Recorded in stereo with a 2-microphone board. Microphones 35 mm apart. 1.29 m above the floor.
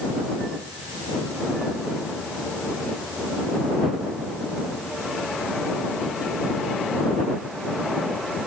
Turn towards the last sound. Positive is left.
No sound to turn to.